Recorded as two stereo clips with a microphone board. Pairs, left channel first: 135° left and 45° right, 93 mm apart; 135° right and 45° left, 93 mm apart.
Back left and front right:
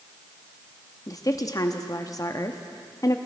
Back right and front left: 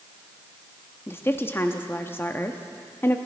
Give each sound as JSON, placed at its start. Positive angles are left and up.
{"t": 1.1, "sound": "a woman speaking", "azimuth_deg": 170, "distance_m": 0.7}